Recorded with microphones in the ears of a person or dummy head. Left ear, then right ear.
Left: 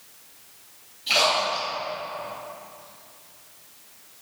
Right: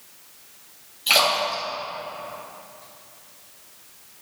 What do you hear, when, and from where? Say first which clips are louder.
1.1 s a splash: right 2 dB; 40° right (ahead or behind), 2.5 m